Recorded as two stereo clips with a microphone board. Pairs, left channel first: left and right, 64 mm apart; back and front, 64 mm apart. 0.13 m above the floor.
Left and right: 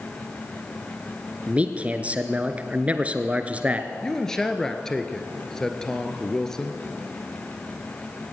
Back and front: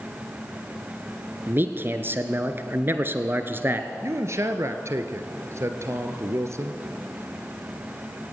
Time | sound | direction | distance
1.5 | a man speaking | 30° right | 1.5 m
4.0 | a man speaking | 10° left | 1.8 m